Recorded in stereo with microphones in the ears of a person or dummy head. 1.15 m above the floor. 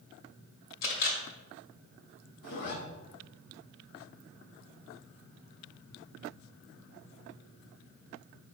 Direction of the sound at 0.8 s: 65° left (ahead or behind).